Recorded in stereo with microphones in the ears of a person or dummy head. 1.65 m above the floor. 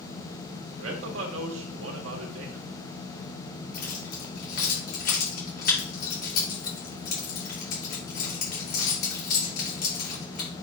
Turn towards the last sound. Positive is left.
turn(degrees=55)  # may be behind; listen again after turning